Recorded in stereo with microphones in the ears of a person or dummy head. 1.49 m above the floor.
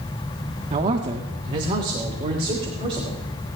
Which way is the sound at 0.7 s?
40° right (ahead or behind).